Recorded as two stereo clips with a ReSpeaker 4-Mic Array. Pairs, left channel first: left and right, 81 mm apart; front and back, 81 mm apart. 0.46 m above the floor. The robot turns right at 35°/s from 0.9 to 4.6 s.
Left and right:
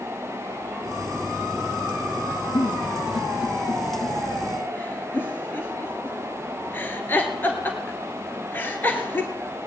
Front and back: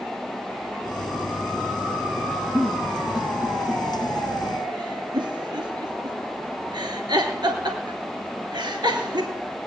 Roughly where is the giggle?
Left.